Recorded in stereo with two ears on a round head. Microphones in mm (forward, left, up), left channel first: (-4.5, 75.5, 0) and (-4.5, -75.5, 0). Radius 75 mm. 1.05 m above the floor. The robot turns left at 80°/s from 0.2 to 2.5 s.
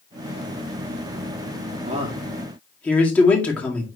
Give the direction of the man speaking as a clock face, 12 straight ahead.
5 o'clock.